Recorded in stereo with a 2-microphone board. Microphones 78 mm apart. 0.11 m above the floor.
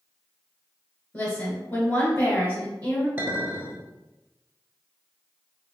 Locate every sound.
1.1 s a woman speaking: 20° left (ahead or behind), 1.9 m
3.2 s a clink: 25° right (ahead or behind), 1.2 m